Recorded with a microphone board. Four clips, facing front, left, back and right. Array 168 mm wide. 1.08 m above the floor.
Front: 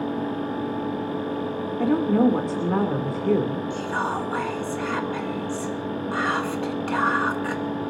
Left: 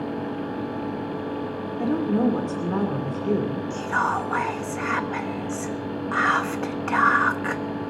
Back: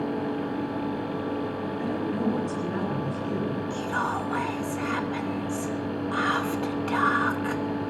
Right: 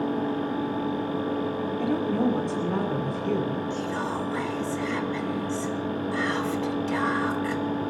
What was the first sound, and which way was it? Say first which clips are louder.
A woman speaking: left 4 dB, front 10 dB; 15° left.